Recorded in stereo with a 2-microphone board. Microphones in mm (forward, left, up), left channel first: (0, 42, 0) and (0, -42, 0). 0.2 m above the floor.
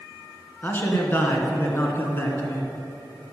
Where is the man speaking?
25° left (ahead or behind), 2.5 m.